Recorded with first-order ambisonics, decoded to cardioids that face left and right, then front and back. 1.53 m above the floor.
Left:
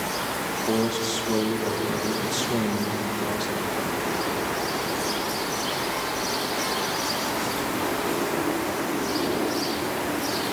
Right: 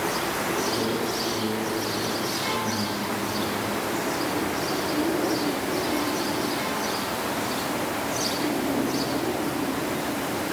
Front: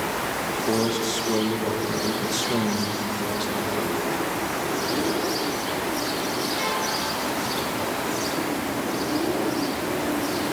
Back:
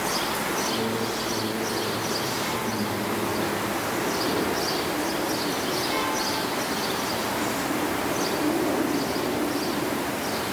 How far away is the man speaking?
About 1.9 m.